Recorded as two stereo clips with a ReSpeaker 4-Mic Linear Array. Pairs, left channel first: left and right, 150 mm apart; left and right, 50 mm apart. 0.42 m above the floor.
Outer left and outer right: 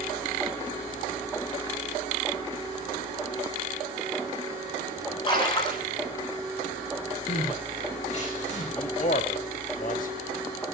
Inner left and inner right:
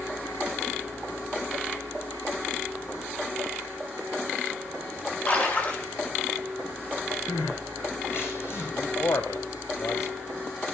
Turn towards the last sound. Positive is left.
turn(degrees=65)  # may be behind; listen again after turning